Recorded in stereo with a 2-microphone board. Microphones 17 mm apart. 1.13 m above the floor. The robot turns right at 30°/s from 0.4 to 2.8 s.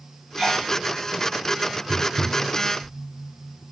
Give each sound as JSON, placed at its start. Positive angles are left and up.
{"t": 0.4, "sound": "a sneeze", "side_deg": -70, "distance_m": 3.0}
{"t": 1.9, "sound": "tapping", "side_deg": -65, "distance_m": 3.0}